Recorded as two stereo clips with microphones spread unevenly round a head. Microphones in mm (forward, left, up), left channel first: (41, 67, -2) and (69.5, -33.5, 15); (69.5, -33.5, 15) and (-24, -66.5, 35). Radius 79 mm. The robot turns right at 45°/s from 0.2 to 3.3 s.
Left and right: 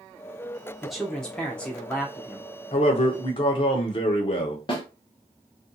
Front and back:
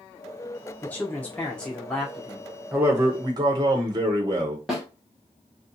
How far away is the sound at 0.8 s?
About 0.6 m.